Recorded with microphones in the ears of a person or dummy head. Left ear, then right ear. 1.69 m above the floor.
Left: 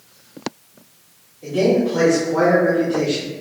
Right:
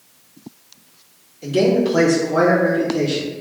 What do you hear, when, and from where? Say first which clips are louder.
1.4 s a man speaking: right 1 dB; 75° right (ahead or behind), 1.4 m; by 3.3 s 15° left (ahead or behind), 1.4 m